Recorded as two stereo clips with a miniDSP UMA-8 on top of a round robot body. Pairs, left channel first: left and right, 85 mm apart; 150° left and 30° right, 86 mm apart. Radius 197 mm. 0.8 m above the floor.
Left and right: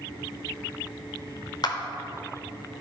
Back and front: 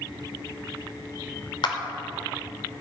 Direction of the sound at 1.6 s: 130° left.